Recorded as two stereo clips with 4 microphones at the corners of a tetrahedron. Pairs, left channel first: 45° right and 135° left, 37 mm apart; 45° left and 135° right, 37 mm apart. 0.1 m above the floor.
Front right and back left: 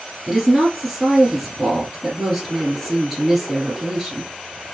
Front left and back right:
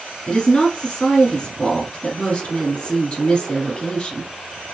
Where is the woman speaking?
45° left, 1.2 m.